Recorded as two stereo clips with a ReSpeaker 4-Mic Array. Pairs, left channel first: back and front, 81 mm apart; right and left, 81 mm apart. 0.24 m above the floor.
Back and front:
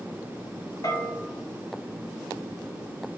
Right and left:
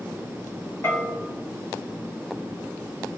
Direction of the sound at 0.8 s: 150° right.